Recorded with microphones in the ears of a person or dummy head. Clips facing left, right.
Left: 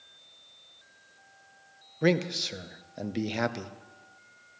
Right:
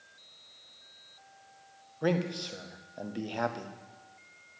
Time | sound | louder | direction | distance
2.0 | a man speaking | left 4 dB | 25° left (ahead or behind) | 0.7 m